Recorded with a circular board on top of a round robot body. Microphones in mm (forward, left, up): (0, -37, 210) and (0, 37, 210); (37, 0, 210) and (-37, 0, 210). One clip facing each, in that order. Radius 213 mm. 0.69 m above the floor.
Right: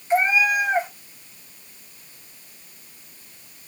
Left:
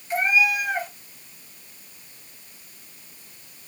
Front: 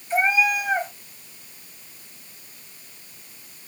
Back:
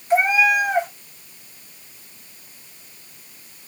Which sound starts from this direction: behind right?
A cat meowing, at 0.1 s.